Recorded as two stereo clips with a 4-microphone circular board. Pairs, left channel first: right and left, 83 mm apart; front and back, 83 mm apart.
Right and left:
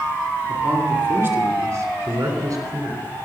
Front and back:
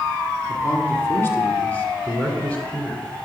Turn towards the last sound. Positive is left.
turn(degrees=75)